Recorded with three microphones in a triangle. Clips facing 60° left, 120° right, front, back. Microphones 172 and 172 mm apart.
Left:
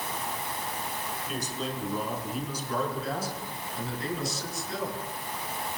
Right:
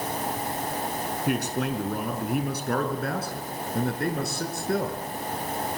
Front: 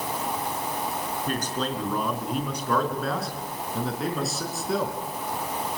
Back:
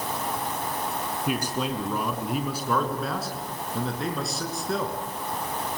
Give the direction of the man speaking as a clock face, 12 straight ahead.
3 o'clock.